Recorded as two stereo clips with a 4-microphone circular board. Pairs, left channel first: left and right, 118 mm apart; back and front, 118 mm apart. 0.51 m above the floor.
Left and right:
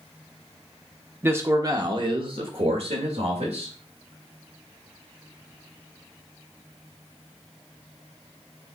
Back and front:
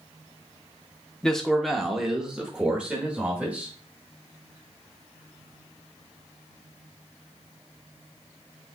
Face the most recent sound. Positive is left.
turn(degrees=-80)